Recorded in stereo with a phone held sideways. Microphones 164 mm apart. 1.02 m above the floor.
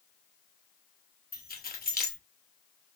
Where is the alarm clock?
No alarm clock in this recording.